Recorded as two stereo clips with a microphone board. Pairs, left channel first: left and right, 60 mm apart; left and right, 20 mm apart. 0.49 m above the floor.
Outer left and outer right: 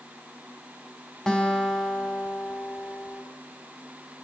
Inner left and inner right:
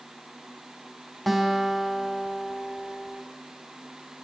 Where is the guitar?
10° left (ahead or behind), 3.5 m.